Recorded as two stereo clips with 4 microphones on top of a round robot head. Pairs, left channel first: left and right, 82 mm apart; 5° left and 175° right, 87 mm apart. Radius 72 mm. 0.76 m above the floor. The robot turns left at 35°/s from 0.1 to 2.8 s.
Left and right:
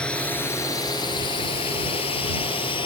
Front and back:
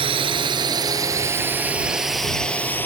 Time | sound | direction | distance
0.0 | a drone | 170° left | ?